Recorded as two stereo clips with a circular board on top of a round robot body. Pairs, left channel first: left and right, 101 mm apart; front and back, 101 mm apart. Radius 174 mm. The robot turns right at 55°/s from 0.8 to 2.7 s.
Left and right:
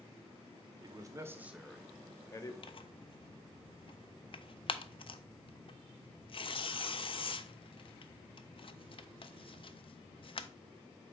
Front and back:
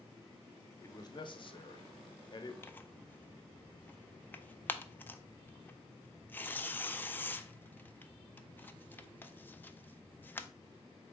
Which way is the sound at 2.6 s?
65° left.